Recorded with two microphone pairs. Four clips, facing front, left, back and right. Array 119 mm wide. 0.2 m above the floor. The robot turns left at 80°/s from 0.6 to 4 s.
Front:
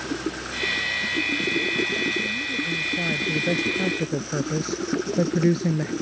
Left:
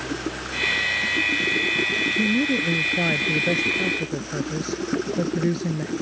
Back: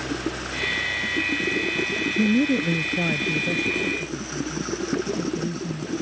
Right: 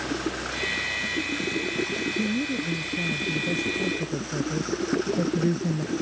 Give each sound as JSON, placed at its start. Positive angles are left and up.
{"t": 2.2, "sound": "a woman speaking", "azimuth_deg": 165}